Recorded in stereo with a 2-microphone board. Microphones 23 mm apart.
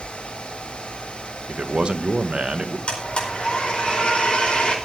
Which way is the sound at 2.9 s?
45° left (ahead or behind).